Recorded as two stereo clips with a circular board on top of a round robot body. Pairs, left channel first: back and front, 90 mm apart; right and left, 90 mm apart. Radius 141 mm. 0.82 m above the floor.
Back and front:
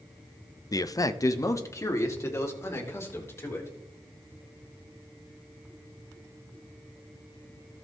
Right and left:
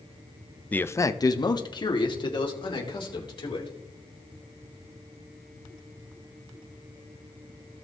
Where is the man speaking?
155° right, 0.8 m; by 3.7 s 120° right, 4.5 m.